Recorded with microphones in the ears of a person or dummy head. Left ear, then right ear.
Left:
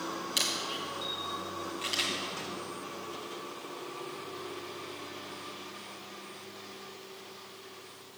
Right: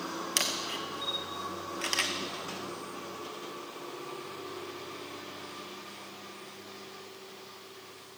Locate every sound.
0.4 s a camera shutter: 35° right (ahead or behind), 1.0 m